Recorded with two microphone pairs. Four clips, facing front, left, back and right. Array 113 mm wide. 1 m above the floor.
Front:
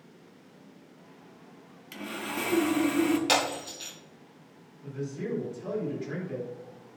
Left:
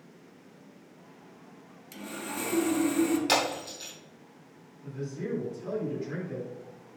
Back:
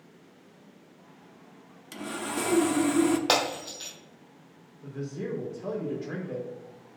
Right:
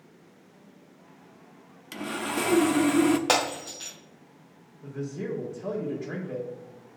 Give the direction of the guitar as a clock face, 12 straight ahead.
I don't hear a guitar.